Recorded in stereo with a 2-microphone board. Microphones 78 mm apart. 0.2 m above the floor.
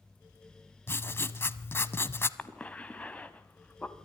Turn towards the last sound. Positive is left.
turn(degrees=15)  # may be behind; listen again after turning